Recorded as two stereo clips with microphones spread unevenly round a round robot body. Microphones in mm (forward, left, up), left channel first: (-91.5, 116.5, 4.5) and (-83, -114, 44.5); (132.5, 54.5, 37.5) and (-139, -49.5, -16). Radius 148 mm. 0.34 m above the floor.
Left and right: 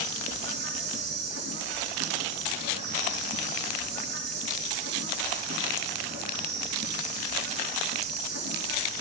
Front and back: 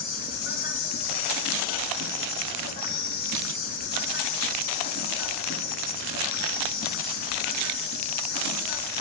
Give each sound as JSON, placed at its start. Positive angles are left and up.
{"t": 0.0, "sound": "an insect", "azimuth_deg": -30, "distance_m": 3.5}